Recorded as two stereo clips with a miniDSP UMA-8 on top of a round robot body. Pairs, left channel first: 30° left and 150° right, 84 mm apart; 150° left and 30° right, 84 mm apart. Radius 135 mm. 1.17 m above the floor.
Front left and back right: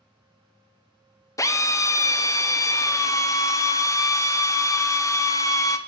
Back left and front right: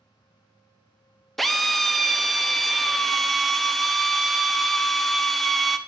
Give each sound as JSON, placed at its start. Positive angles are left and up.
{"t": 1.4, "sound": "a drill", "azimuth_deg": 60, "distance_m": 0.8}